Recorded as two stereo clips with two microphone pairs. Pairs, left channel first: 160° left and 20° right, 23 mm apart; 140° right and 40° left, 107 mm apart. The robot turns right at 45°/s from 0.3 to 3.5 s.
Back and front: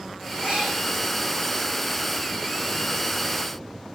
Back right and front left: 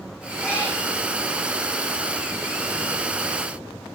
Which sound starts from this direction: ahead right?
A cat meowing, at 0.4 s.